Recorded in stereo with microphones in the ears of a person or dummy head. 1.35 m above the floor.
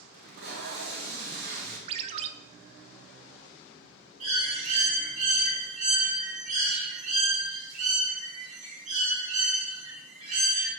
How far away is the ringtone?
About 0.6 m.